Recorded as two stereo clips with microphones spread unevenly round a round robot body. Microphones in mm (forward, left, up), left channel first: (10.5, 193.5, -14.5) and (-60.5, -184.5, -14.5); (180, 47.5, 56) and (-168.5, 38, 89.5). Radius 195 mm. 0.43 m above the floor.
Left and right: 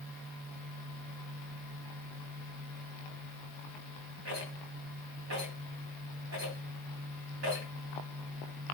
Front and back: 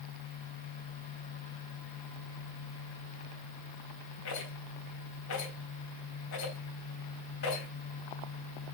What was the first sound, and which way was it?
A rattle, 40° right.